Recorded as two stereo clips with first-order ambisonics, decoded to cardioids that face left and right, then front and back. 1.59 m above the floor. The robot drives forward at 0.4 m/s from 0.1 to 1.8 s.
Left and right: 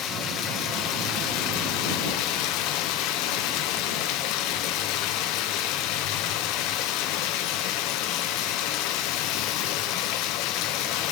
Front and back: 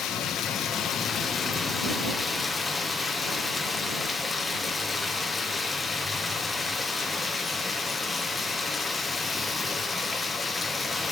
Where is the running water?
45° left, 1.2 m; by 11.1 s 80° left, 0.9 m.